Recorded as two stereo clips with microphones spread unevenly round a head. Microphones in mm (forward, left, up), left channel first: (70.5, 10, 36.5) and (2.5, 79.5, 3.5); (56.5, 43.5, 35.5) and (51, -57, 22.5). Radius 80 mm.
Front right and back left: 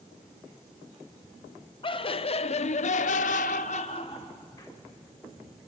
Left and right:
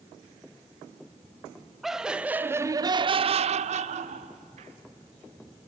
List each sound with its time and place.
1.8 s laughter: 5° right, 1.4 m; by 4.7 s 120° right, 1.5 m